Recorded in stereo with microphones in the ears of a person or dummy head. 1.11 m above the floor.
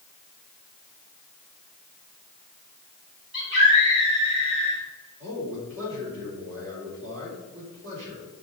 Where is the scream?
35° right (ahead or behind), 4 m.